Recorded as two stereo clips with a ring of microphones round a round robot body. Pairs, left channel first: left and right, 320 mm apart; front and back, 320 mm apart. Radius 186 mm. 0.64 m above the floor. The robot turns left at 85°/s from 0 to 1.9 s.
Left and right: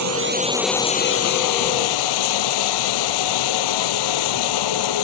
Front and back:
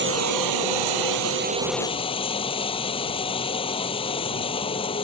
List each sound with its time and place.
0.0 s running water: 125° right; by 5.0 s 75° left